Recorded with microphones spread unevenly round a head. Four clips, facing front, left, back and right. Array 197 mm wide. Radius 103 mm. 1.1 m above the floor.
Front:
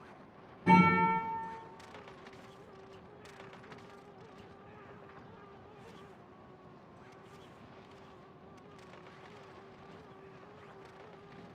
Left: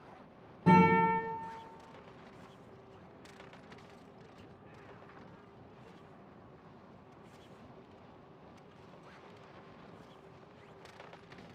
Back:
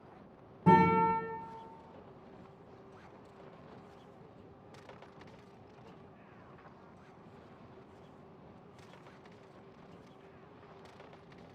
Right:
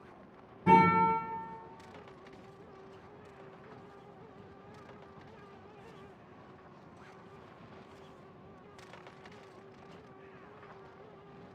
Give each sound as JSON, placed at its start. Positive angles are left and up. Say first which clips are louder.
{"t": 0.7, "sound": "a guitar", "louder": "right 1 dB, back 1 dB", "azimuth_deg": 140, "distance_m": 1.4}